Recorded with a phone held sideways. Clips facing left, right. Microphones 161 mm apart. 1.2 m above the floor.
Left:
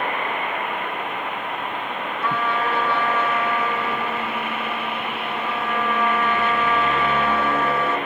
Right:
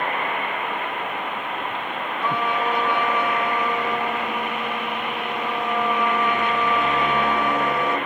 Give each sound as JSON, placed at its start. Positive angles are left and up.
{"t": 2.2, "sound": "a trumpet", "side_deg": -15, "distance_m": 3.5}